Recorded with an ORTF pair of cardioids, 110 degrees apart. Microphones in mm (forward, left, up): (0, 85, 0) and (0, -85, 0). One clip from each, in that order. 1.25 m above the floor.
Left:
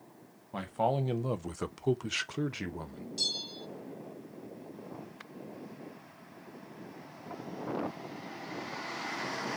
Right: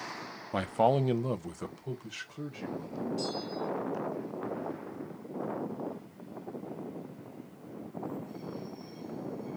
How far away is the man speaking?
About 0.7 m.